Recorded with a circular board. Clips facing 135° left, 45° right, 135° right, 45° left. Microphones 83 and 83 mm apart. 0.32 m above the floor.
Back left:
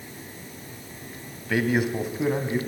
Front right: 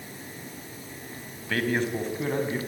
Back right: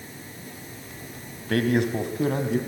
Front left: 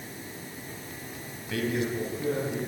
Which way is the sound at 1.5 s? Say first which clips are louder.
Back left 3 dB, back right 6 dB; 145° right.